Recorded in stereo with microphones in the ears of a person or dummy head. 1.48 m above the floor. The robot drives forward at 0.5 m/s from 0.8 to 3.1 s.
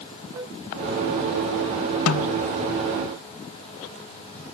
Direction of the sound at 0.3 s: 15° right (ahead or behind).